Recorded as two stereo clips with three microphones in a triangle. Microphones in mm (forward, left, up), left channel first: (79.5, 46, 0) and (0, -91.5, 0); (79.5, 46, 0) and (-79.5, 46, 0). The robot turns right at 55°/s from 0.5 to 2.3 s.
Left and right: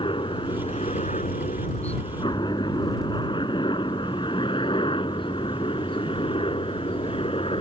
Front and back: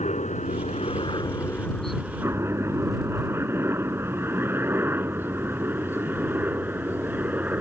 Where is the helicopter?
15° left; by 7.6 s 105° left.